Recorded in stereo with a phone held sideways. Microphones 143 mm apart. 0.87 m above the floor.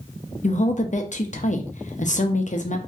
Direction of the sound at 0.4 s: 60° left (ahead or behind).